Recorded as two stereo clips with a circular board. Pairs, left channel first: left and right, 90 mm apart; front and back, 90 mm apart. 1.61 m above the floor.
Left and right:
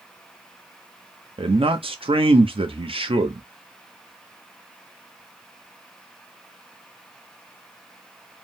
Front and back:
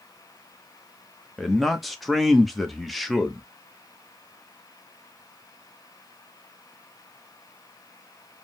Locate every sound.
1.4 s a man speaking: 90° right, 0.8 m